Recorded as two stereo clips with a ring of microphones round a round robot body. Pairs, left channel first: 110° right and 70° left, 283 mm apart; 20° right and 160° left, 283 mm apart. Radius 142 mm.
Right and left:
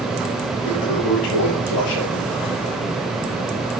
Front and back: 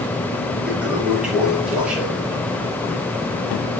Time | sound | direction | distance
0.7 | a toilet flushing | 115° right | 5 m